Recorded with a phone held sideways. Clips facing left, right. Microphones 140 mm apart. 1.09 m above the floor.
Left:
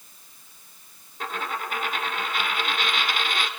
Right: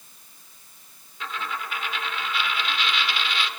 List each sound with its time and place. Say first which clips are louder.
1.2 s a dropped coin: left 2 dB; 45° left (ahead or behind), 0.9 m